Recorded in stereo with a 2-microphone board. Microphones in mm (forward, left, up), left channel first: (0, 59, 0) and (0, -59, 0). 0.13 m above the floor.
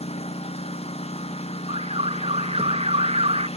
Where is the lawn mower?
60° left (ahead or behind).